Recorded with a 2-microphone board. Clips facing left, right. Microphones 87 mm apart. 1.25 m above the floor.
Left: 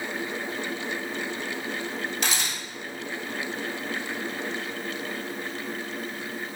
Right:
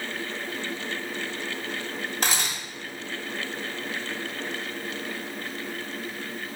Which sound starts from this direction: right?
A camera shutter, at 2.2 s.